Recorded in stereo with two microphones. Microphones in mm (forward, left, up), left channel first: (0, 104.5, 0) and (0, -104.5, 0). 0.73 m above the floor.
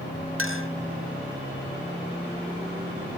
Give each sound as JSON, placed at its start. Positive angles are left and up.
{"t": 0.4, "sound": "a clink", "side_deg": -75, "distance_m": 2.0}